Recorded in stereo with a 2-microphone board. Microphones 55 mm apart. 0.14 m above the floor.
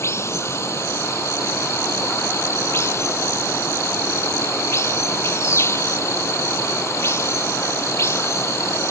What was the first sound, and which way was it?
Running water, 55° left (ahead or behind).